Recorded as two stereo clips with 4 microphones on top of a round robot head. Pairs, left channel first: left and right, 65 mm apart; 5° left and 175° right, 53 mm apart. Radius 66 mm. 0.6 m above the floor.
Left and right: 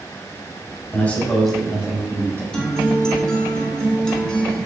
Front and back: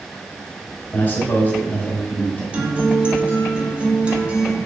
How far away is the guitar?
About 0.9 m.